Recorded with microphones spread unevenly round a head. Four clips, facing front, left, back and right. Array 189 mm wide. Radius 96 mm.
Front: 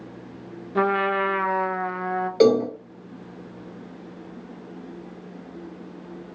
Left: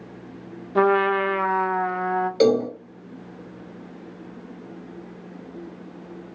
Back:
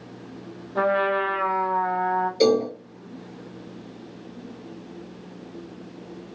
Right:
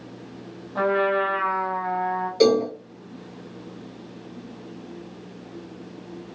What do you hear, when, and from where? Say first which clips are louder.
0.8 s a trumpet: left 3 dB, even; 50° left, 0.6 m
2.4 s a cowbell: right 1 dB, front 3 dB; 5° right, 1.3 m